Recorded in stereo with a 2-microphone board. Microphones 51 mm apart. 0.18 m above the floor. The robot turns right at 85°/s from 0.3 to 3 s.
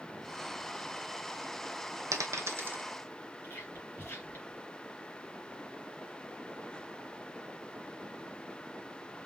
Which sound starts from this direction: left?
Whispering, at 3.4 s.